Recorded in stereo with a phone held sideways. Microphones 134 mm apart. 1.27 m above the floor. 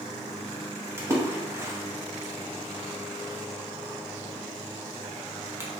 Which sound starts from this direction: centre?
A splash, at 1.0 s.